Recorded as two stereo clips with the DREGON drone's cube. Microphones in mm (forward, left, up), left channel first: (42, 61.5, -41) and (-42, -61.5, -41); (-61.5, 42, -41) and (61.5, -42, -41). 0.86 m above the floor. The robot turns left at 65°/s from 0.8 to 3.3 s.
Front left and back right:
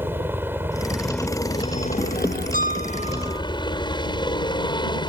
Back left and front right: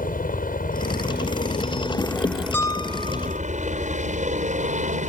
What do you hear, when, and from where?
0.0 s a helicopter: 160° left; by 5.1 s straight ahead
2.5 s a piano: 140° right; by 3.4 s 175° left